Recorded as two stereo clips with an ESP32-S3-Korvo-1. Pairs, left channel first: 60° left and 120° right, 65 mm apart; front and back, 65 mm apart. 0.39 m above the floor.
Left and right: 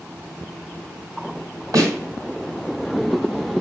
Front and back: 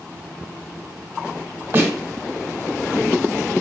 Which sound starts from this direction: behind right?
A snare drum, at 1.7 s.